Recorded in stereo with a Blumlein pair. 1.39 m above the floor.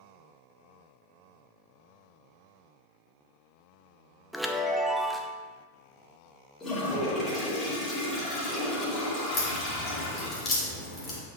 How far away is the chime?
About 0.6 m.